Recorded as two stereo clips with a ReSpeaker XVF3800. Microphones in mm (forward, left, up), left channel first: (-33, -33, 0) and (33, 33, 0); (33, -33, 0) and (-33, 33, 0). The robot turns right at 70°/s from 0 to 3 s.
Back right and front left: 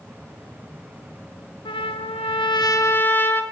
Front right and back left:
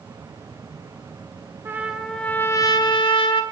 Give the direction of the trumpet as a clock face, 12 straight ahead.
5 o'clock.